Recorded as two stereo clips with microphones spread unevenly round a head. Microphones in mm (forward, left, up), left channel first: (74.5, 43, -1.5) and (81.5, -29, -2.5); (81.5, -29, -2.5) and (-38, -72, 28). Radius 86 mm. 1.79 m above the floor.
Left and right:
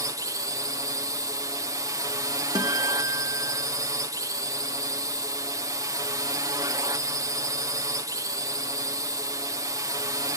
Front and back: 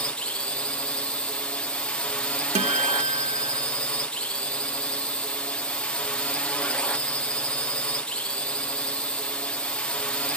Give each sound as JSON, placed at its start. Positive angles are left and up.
{"t": 0.0, "sound": "a drone", "azimuth_deg": -55}
{"t": 2.5, "sound": "a guitar", "azimuth_deg": -145}